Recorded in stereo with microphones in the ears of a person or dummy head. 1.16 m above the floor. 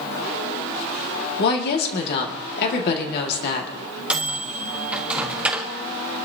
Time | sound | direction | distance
1.4 | a woman speaking | 55° left (ahead or behind) | 1.9 m
4.1 | a microwave | 5° right (ahead or behind) | 1.1 m